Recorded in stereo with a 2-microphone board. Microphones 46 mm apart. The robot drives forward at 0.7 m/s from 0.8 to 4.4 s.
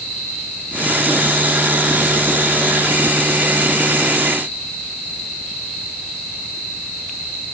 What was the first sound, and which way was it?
Only background noise.